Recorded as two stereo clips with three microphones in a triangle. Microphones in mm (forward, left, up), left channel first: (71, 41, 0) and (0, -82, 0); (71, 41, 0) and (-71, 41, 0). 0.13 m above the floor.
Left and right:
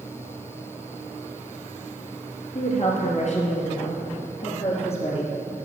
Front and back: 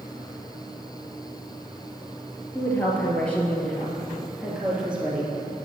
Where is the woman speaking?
70° left, 2.5 m; by 5.3 s 100° left, 3.5 m.